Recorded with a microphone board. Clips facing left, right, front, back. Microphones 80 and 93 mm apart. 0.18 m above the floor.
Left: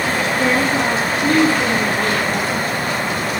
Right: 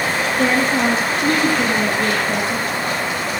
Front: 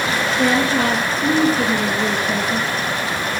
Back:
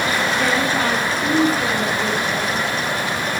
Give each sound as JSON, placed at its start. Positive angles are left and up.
{"t": 0.4, "sound": "a woman speaking", "azimuth_deg": -60, "distance_m": 4.5}